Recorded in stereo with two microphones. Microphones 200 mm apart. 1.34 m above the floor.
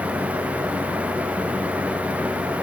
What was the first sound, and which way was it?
Only background noise.